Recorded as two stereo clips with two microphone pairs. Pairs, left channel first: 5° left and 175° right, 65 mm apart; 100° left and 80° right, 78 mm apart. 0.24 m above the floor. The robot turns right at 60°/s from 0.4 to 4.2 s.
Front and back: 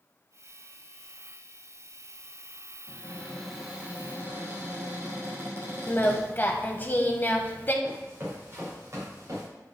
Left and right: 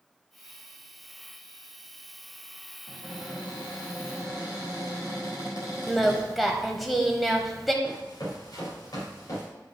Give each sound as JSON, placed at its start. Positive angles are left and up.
{"t": 2.9, "sound": "a cupboard door", "azimuth_deg": 60, "distance_m": 3.5}
{"t": 5.9, "sound": "singing", "azimuth_deg": 15, "distance_m": 0.9}
{"t": 7.8, "sound": "running footsteps", "azimuth_deg": 125, "distance_m": 4.0}